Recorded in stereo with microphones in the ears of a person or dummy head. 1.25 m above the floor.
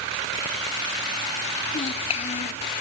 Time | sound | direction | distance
1.7 | a child speaking | 40° left (ahead or behind) | ?